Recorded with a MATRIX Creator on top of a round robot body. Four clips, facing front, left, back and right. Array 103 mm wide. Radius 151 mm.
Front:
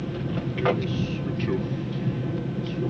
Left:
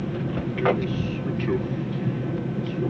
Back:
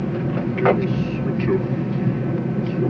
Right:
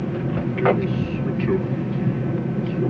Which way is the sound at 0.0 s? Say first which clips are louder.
Right 3 dB, back 7 dB; 155° right.